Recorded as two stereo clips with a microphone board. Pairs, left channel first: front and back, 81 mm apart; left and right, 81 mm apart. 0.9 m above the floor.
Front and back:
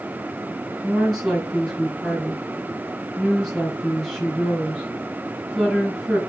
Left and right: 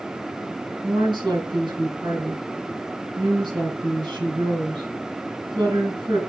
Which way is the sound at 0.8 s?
90° right.